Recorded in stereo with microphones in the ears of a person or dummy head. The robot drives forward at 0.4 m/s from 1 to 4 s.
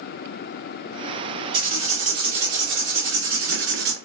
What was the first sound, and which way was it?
Writing, 45° right (ahead or behind).